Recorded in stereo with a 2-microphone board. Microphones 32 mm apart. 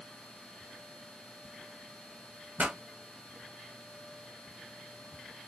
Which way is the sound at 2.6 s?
55° right (ahead or behind).